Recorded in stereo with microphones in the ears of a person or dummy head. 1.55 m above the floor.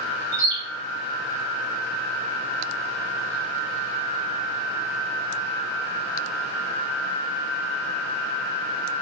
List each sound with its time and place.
0.3 s a bird: 30° right (ahead or behind), 0.9 m